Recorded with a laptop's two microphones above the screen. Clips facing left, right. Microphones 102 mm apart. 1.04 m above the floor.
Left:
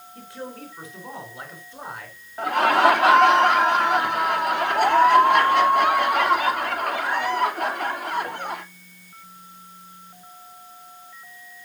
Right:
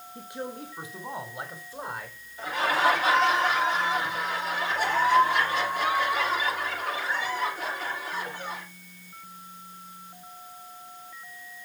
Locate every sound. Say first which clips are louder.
0.1 s a man speaking: even; 15° right (ahead or behind), 4.5 m; by 2.2 s 5° right (ahead or behind), 4 m
2.4 s laughter: left 7 dB; 60° left (ahead or behind), 3 m